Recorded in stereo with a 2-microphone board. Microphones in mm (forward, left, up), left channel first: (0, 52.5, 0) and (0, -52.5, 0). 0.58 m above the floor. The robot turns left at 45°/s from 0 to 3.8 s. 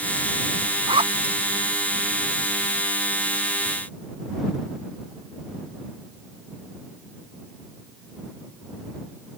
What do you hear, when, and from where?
0.9 s a zipper: 60° right (ahead or behind); by 1.4 s 80° right